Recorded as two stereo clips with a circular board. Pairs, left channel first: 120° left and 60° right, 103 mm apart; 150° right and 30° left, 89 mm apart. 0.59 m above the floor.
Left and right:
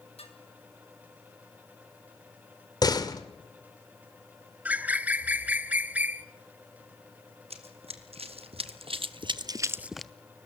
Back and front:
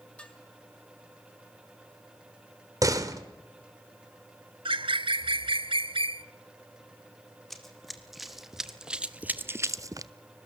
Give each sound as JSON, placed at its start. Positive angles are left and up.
{"t": 0.2, "sound": "dishes clattering", "azimuth_deg": 130, "distance_m": 5.0}
{"t": 2.8, "sound": "a door slam", "azimuth_deg": 75, "distance_m": 1.8}
{"t": 4.7, "sound": "a bird", "azimuth_deg": 15, "distance_m": 0.8}
{"t": 7.5, "sound": "running footsteps", "azimuth_deg": -65, "distance_m": 2.5}